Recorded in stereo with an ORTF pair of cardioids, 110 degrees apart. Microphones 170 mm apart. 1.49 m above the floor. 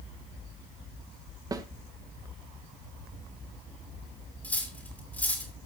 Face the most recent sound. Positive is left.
turn(degrees=10)